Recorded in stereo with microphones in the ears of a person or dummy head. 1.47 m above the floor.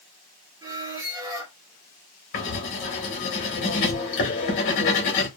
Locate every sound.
0.6 s a squeak: 15° right (ahead or behind), 0.6 m
2.3 s writing: 30° left (ahead or behind), 0.9 m